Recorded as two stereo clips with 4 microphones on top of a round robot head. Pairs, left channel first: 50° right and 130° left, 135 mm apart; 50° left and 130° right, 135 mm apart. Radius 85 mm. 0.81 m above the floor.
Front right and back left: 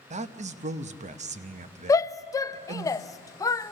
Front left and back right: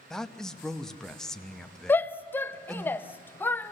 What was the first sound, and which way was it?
A man speaking, 135° left.